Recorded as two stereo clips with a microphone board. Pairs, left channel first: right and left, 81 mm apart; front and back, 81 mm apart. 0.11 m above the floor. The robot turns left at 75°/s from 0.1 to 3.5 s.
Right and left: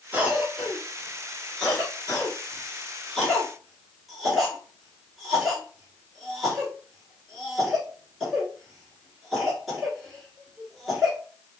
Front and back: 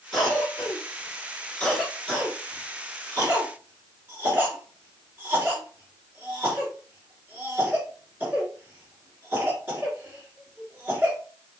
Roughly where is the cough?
Left.